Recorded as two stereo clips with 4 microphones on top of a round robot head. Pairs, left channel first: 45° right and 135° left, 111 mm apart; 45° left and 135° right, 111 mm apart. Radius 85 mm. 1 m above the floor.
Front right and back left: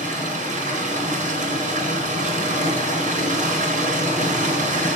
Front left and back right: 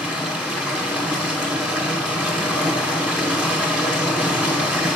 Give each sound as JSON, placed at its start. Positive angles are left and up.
{"t": 0.0, "sound": "running water", "azimuth_deg": 145, "distance_m": 2.0}